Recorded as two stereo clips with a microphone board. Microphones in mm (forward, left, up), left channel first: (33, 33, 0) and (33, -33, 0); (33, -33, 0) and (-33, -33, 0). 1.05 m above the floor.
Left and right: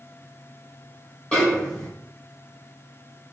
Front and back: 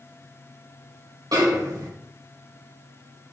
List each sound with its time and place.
1.3 s a snare drum: 170° left, 3.5 m